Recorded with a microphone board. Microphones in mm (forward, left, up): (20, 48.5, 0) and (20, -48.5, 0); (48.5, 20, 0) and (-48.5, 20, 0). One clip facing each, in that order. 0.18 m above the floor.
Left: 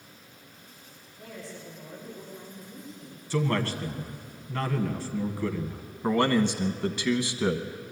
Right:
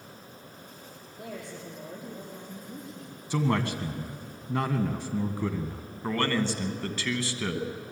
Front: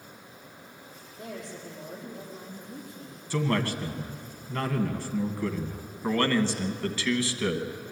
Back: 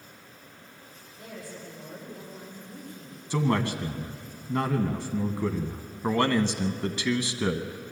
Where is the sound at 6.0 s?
135° left, 1.1 m.